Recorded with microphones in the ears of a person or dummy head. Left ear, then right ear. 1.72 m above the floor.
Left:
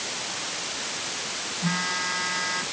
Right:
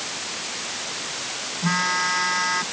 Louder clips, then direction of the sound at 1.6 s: Right 6 dB; 35° right (ahead or behind).